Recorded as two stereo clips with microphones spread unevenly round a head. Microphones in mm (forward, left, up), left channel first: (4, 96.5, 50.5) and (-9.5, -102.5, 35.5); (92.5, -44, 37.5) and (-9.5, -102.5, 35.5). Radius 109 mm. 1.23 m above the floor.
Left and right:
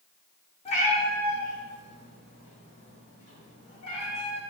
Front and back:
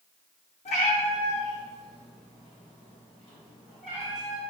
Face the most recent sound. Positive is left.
turn(degrees=95)